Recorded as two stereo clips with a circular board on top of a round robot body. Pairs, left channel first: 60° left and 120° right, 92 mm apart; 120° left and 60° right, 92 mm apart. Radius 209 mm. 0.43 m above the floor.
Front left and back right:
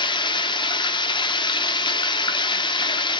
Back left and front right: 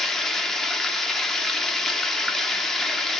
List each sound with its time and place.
0.0 s running water: 35° left, 0.9 m